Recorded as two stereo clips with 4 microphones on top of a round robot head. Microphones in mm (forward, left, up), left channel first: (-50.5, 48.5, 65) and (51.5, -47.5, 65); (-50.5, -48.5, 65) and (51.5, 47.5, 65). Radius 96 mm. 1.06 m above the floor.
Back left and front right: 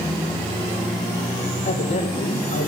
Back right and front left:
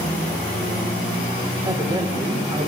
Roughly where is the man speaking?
Left.